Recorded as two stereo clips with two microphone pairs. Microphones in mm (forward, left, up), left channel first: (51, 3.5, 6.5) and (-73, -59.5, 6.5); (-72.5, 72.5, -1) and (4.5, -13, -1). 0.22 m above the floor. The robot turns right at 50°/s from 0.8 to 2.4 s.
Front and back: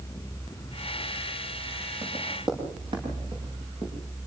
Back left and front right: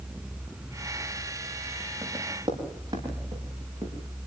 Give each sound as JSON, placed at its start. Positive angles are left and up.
{"t": 2.0, "sound": "running footsteps", "azimuth_deg": -115, "distance_m": 8.5}